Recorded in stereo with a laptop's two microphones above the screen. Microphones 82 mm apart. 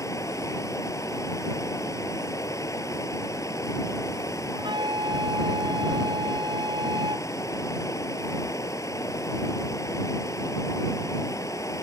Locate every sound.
0.0 s running water: 40° left (ahead or behind)
4.5 s a flute: 70° right (ahead or behind)